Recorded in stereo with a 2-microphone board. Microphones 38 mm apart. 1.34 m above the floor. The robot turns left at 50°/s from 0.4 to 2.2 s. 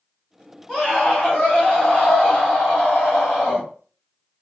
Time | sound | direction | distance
0.7 | a scream | 165° left | 1.7 m